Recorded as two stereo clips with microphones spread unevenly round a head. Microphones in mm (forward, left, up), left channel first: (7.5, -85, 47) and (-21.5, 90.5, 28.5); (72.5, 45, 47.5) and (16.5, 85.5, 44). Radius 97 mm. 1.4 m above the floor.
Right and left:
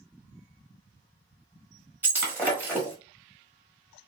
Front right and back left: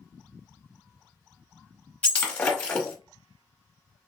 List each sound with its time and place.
2.0 s breaking glass: 15° left, 1.0 m